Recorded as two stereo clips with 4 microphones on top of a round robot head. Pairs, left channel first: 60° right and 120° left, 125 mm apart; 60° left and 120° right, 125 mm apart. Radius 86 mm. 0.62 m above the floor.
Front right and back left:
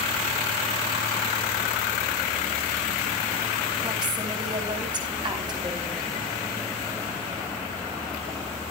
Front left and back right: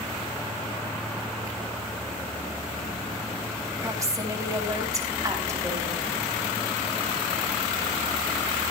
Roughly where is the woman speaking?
Behind.